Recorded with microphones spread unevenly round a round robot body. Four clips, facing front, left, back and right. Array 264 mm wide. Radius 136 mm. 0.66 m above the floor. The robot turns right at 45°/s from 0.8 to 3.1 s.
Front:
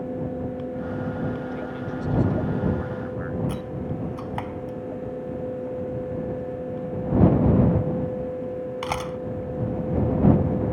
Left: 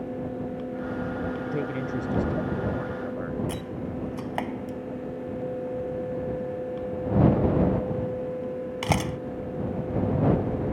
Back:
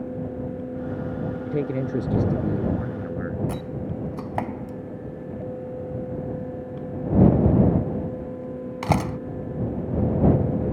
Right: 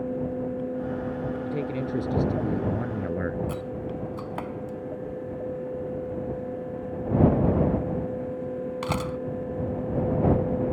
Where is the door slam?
165° left.